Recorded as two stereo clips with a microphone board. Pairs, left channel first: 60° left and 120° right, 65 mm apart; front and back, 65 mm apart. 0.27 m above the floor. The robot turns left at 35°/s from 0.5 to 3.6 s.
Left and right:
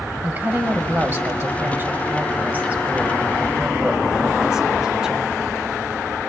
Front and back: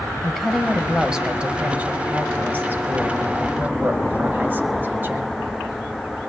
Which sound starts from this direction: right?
A woman speaking, at 0.2 s.